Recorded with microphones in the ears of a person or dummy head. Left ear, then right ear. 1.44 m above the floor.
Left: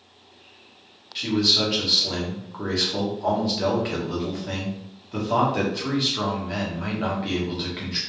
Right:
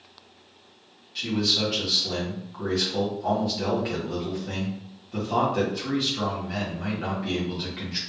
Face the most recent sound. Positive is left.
turn(degrees=25)  # may be behind; listen again after turning